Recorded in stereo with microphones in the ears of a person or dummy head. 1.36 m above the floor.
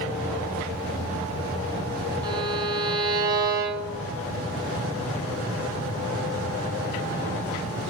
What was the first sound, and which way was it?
A violin, 25° right (ahead or behind).